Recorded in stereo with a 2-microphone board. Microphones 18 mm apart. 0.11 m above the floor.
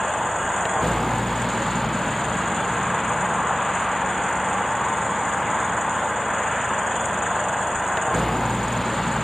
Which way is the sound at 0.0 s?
10° left (ahead or behind).